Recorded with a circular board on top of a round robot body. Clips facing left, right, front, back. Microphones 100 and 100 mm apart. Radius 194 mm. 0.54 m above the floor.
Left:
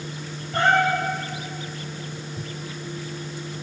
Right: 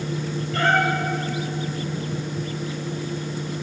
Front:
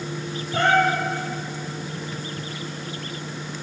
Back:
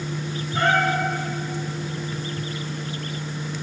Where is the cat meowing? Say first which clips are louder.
Left 1 dB, front 2 dB; 25° left, 4 m.